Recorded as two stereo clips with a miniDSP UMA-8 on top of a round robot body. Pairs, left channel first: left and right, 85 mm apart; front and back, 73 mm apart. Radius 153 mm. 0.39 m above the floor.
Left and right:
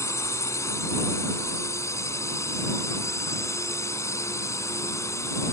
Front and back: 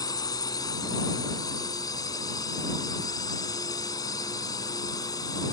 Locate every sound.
0.0 s a drone: 35° left